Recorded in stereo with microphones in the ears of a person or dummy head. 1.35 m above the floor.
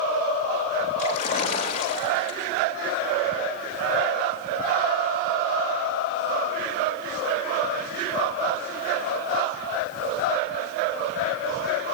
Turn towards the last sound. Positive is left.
turn(degrees=40)  # may be behind; listen again after turning